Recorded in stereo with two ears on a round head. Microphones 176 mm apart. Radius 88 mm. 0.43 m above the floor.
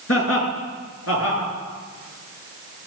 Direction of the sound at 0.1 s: 75° left (ahead or behind).